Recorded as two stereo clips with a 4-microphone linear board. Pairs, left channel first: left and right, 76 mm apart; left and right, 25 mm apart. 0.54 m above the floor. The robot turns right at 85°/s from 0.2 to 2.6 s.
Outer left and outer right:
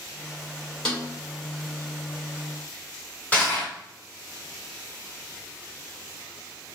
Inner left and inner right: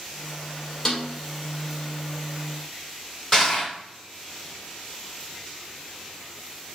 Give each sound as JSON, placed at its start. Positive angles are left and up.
{"t": 0.8, "sound": "a snare drum", "side_deg": 10, "distance_m": 1.8}
{"t": 3.3, "sound": "crushing", "side_deg": 15, "distance_m": 2.0}